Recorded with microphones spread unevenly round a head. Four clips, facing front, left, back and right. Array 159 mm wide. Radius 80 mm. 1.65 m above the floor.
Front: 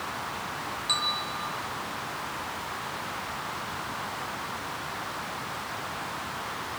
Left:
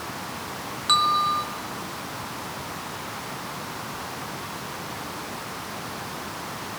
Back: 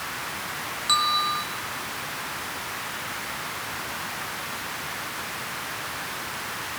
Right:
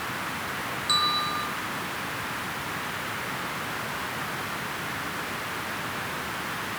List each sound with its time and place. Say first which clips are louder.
0.9 s a bell: left 7 dB, back 11 dB; 95° left, 5 m